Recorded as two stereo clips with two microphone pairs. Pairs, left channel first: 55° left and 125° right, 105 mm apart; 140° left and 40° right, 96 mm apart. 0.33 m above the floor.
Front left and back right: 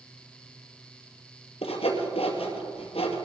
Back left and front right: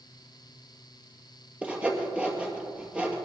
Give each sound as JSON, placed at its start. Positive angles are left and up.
{"t": 1.6, "sound": "sawing", "azimuth_deg": 40, "distance_m": 2.0}